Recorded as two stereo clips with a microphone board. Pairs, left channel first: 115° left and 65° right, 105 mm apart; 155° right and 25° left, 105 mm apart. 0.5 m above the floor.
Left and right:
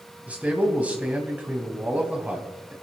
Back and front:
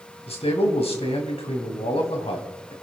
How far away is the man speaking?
About 3.5 m.